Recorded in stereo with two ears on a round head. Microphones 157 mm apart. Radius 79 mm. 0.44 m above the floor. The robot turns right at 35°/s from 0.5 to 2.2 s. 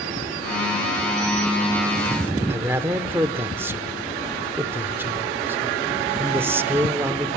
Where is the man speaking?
15° right (ahead or behind), 0.9 m.